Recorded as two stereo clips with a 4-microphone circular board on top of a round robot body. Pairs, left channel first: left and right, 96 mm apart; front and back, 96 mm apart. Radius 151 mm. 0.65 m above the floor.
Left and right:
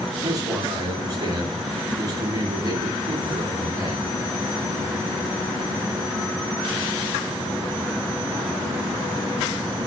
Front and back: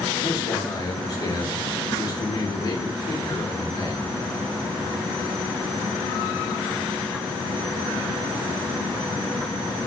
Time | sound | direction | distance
0.2 | a man speaking | 40° right | 2 m